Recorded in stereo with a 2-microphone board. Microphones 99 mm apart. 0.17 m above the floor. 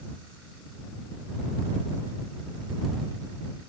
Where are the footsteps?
No footsteps in this recording.